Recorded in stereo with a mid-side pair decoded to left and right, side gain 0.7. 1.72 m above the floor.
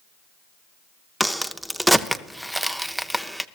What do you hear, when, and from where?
1.2 s a crack: 5° right, 0.6 m